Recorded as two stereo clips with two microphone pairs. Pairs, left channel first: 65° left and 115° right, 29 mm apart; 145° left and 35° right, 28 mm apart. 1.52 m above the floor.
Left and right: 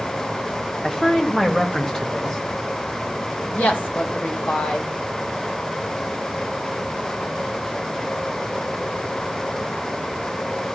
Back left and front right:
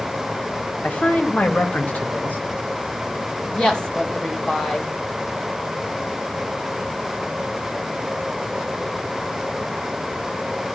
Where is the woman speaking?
85° left, 2.5 m.